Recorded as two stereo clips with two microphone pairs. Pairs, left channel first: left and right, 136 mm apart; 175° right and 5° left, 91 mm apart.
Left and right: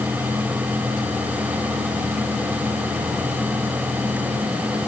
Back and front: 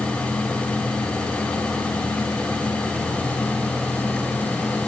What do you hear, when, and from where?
Only background noise.